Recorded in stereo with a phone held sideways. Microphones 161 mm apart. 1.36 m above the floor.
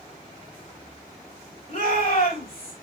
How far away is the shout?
About 4 m.